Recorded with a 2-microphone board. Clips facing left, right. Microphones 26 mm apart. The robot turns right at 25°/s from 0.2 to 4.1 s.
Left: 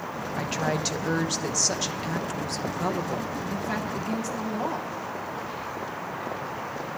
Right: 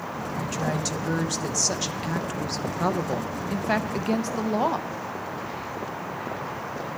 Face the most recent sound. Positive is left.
turn(degrees=-120)